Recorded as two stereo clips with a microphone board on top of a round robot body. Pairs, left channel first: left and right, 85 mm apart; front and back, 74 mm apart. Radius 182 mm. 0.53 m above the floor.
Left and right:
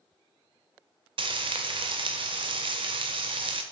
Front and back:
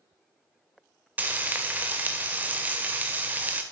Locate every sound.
1.2 s frying: 110° right, 0.5 m